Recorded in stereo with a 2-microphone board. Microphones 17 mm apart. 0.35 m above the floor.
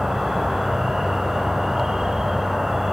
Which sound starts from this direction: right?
An insect, at 0.0 s.